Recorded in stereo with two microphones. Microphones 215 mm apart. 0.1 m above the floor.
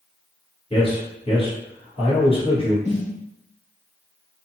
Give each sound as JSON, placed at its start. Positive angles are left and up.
{"t": 0.7, "sound": "a man speaking", "side_deg": 30, "distance_m": 1.5}
{"t": 2.9, "sound": "a snare drum", "side_deg": 40, "distance_m": 1.1}